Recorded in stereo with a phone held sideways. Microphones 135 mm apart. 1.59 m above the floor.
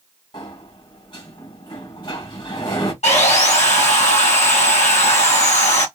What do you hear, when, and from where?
0.3 s a sliding door: 35° left (ahead or behind), 1.4 m
3.0 s sawing: 55° left (ahead or behind), 1.1 m